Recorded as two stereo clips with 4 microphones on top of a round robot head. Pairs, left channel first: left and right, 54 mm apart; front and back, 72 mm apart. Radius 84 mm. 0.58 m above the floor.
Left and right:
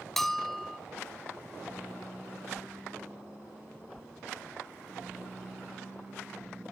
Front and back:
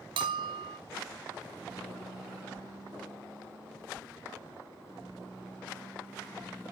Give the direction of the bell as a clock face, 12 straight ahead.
6 o'clock.